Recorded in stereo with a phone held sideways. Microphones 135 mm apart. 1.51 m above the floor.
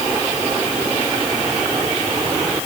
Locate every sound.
Only background noise.